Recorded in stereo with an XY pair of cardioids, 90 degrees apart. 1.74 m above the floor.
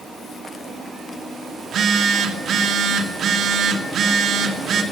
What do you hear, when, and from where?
1.6 s a phone buzzing: 70° right, 2.5 m